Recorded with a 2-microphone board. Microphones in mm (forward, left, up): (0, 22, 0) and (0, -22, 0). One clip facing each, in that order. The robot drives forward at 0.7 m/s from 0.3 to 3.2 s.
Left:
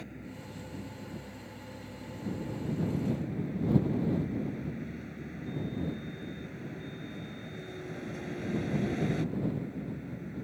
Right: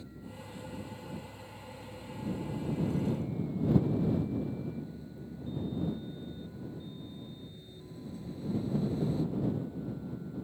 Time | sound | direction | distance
0.0 | a vehicle | 60° left (ahead or behind) | ?